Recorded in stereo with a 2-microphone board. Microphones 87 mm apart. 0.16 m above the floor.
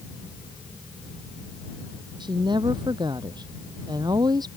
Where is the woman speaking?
65° right (ahead or behind); by 4.5 s 55° right (ahead or behind).